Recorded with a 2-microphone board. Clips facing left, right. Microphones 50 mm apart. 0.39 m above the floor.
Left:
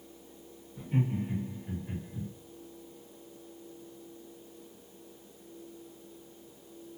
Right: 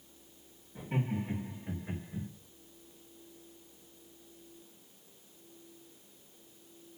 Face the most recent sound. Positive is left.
turn(degrees=-50)  # may be behind; listen again after turning